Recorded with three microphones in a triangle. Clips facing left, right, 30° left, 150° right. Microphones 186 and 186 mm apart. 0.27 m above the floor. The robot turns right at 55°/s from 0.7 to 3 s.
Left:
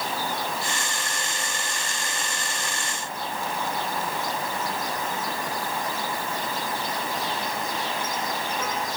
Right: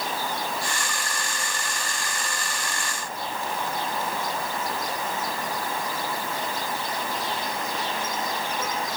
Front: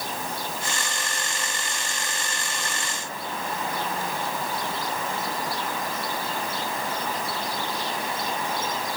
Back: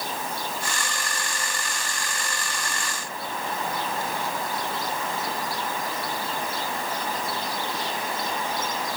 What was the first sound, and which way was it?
Only background noise.